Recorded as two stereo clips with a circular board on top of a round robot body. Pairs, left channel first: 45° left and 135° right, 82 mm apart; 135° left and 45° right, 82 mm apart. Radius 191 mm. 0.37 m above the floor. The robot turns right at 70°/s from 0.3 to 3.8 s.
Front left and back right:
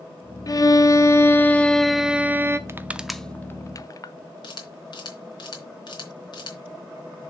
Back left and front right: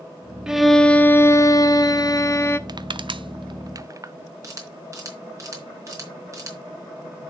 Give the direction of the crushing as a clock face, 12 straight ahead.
3 o'clock.